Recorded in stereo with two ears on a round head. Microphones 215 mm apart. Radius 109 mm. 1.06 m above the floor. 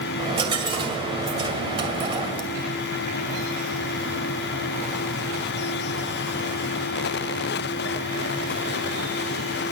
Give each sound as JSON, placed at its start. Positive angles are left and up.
{"t": 0.2, "sound": "a dropped coin", "side_deg": -20, "distance_m": 2.0}